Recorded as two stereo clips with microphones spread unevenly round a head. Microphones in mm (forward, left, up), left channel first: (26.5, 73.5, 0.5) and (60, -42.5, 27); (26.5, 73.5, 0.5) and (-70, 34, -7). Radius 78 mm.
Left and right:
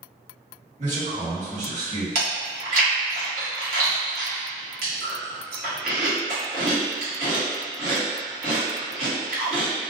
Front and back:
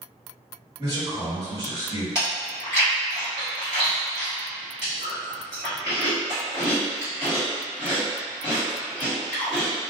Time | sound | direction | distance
0.8 | a man speaking | 115° right | 1.4 m
2.1 | chewing | 90° right | 1.4 m